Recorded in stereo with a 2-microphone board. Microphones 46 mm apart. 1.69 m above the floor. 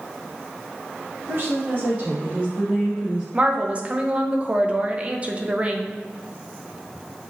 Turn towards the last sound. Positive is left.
turn(degrees=-25)  # may be behind; listen again after turning